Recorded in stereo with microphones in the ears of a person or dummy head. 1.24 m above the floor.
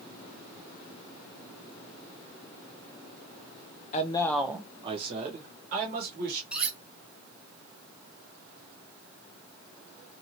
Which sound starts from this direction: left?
A man speaking, at 3.9 s.